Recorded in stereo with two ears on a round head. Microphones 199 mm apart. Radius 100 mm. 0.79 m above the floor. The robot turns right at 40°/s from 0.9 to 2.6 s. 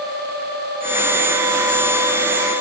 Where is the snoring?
I don't hear snoring.